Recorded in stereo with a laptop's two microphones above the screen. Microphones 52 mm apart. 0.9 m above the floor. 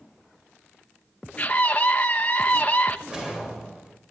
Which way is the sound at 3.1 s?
15° right (ahead or behind).